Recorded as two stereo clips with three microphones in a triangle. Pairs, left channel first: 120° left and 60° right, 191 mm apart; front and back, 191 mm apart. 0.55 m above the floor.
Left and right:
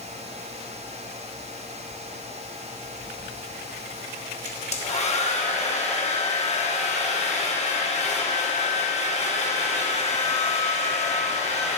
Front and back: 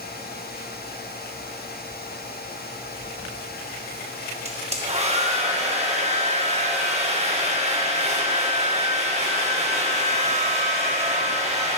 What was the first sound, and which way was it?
A hair dryer, 150° left.